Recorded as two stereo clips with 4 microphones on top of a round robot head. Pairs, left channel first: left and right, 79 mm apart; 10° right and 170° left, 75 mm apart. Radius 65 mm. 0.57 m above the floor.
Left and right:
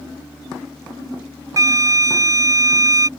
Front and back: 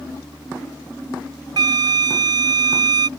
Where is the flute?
140° right.